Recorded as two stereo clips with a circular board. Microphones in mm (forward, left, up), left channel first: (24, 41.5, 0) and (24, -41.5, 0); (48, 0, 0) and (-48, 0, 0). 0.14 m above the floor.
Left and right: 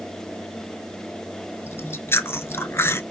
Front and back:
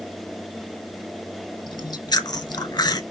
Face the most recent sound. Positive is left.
turn(degrees=35)